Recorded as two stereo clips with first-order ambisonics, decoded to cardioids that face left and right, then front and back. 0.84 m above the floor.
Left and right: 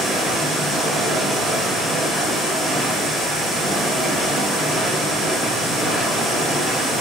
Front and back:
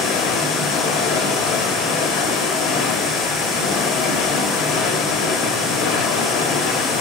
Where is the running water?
10° left, 1.5 m.